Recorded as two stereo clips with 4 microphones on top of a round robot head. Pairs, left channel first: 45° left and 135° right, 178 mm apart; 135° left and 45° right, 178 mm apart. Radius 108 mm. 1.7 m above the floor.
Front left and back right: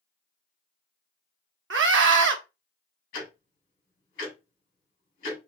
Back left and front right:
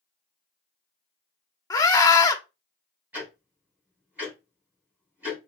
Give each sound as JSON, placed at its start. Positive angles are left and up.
{"t": 1.7, "sound": "a scream", "azimuth_deg": -155, "distance_m": 1.0}
{"t": 3.1, "sound": "ticking", "azimuth_deg": 35, "distance_m": 3.0}